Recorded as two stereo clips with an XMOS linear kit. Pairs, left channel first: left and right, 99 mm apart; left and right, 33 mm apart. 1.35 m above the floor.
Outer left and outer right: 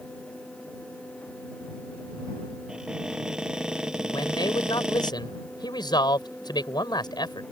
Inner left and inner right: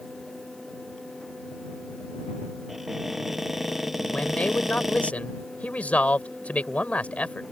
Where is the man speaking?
45° left (ahead or behind).